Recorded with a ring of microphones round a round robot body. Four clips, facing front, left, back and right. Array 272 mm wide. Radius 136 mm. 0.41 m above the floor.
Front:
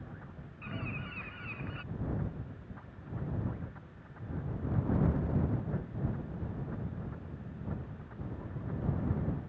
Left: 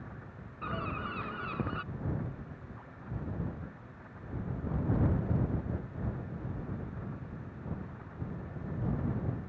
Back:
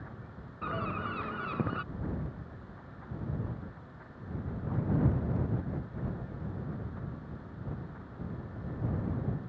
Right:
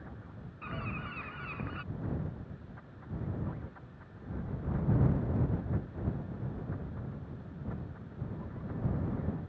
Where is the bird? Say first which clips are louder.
Left 4 dB, back 8 dB; 155° left.